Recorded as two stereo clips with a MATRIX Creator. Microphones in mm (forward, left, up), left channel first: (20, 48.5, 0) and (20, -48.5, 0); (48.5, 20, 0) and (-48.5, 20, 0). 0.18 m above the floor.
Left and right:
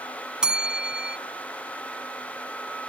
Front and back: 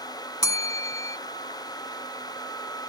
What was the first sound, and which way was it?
A bell, 15° right.